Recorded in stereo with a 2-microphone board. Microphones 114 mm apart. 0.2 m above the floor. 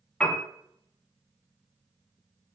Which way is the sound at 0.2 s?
10° left (ahead or behind).